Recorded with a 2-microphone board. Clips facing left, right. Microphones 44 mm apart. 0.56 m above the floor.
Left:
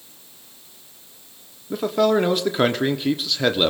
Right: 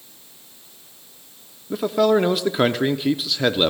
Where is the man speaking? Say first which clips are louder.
Right 1 dB; 5° right (ahead or behind), 0.8 m.